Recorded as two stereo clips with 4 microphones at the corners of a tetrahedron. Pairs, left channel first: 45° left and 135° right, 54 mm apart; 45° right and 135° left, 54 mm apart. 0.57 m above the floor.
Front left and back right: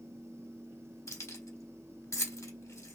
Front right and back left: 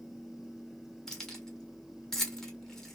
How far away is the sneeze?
No sneeze in this recording.